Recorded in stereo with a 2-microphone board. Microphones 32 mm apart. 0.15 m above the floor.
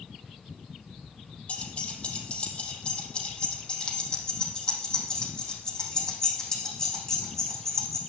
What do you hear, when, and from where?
1.5 s keys jangling: 50° left (ahead or behind), 4 m; by 8.0 s 15° left (ahead or behind), 7.5 m